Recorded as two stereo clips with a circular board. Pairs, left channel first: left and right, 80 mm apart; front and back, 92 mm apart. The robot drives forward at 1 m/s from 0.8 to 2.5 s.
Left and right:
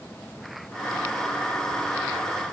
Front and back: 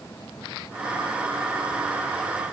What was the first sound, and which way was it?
Only background noise.